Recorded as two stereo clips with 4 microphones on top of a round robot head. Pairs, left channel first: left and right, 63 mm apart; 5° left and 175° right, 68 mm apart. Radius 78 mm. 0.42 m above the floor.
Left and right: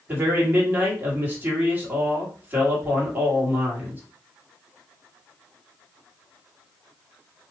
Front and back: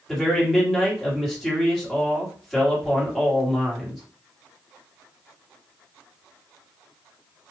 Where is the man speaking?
80° right, 1.6 m.